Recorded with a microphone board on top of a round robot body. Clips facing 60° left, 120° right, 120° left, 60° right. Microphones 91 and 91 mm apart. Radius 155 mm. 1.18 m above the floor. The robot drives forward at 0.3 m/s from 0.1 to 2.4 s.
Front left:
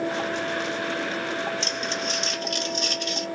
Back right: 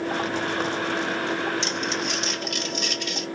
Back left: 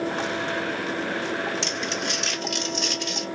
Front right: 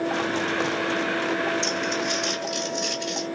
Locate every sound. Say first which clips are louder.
1.6 s crumpling: back right 2 dB, front right 3 dB; 105° left, 2.5 m; by 3.3 s 110° left, 2.5 m